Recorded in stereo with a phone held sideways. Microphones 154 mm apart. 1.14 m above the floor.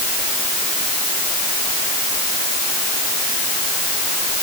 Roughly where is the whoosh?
I don't hear a whoosh.